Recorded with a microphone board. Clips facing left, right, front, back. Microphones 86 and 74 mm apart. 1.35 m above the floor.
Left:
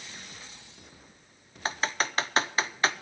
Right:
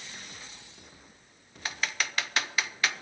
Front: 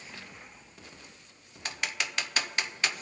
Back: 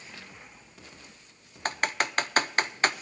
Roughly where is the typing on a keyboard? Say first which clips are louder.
Left 4 dB, back 6 dB; behind left.